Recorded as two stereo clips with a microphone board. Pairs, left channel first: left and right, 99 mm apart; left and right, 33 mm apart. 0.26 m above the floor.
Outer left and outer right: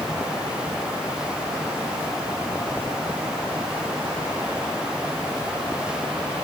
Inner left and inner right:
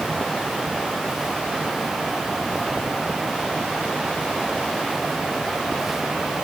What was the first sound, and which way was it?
Only background noise.